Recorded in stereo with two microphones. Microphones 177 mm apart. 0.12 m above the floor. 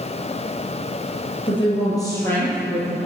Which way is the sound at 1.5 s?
30° left (ahead or behind).